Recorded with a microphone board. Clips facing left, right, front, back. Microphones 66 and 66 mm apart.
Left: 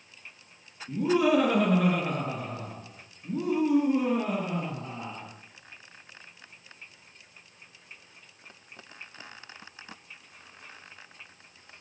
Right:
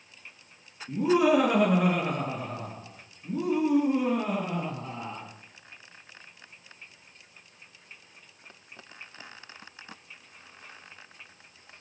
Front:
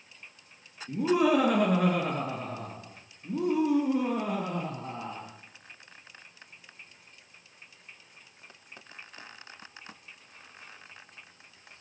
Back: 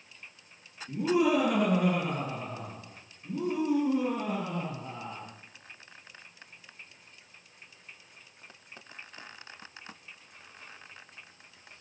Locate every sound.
0.9 s laughter: 15° right, 4.5 m; by 5.3 s 5° left, 6 m